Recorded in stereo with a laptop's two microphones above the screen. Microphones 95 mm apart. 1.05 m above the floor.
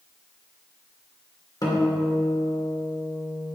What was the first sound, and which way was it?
A guitar, 40° left (ahead or behind).